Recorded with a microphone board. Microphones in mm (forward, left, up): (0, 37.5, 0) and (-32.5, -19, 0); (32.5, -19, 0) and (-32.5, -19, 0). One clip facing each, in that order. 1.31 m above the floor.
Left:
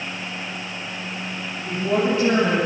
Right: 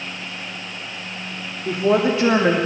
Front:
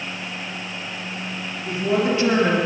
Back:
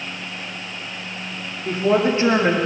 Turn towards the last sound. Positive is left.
turn(degrees=-110)